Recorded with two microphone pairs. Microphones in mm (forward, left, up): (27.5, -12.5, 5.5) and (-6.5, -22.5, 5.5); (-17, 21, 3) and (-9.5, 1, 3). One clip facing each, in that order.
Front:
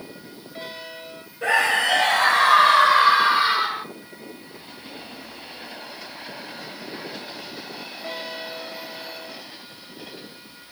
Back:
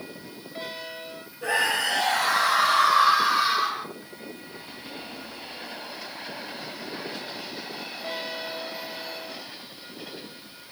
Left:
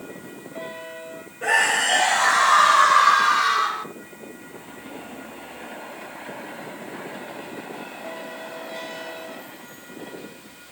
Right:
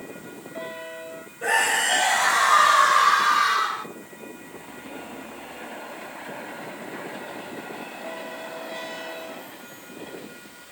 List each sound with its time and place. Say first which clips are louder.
1.4 s a scream: front 5 dB, left 2 dB; 35° left, 3 m; by 3.9 s 30° left, 1.7 m